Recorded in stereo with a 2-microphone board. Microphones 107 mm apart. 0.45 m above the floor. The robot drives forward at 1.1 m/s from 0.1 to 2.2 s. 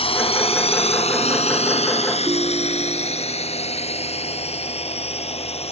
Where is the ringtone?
40° right (ahead or behind).